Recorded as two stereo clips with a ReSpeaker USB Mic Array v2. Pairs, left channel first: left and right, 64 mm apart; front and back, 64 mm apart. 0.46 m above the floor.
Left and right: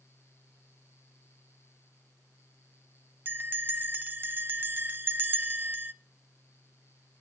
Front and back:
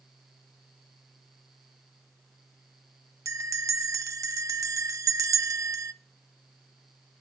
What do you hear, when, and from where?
3.2 s a bell: 150° right, 0.7 m